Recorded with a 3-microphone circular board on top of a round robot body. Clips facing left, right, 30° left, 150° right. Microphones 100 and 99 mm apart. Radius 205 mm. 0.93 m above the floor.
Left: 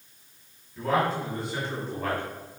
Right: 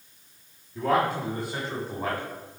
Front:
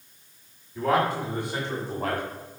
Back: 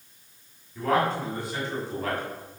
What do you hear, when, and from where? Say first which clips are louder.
0.8 s a man speaking: right 1 dB, front 1 dB; 55° right, 2.5 m; by 2.2 s 25° right, 2 m